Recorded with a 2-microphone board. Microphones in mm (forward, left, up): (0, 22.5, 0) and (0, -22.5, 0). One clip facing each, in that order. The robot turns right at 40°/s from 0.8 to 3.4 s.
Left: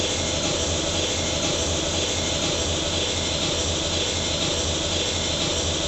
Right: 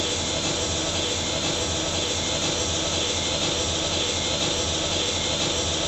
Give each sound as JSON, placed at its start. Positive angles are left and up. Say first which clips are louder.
{"t": 0.0, "sound": "an engine running", "louder": "left 1 dB", "azimuth_deg": 70, "distance_m": 0.8}